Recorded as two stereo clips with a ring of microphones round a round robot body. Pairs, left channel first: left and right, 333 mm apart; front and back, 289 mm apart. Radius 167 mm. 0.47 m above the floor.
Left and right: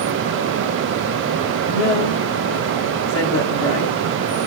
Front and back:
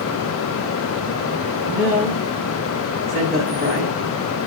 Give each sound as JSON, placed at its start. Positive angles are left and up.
{"t": 1.7, "sound": "a woman speaking", "azimuth_deg": 120, "distance_m": 1.9}